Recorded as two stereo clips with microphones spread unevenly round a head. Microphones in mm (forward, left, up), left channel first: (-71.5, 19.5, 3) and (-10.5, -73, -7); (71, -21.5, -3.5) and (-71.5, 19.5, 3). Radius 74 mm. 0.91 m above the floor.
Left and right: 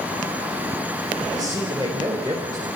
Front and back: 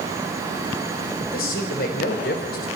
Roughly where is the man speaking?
Ahead.